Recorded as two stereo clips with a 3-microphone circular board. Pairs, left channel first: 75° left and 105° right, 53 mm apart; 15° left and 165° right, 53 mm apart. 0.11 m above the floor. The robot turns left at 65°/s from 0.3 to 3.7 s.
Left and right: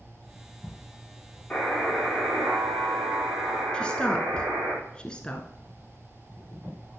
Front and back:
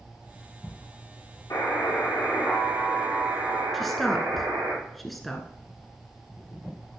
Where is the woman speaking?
100° left, 1.1 m.